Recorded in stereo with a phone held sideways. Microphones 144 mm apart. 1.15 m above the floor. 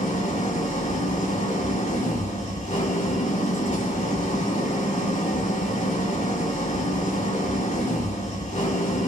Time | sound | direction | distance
0.0 | an engine running | 65° left (ahead or behind) | 5.5 m